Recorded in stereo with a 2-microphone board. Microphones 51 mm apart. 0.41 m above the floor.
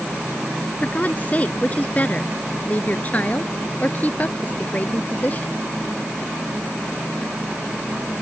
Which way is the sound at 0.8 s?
30° left (ahead or behind).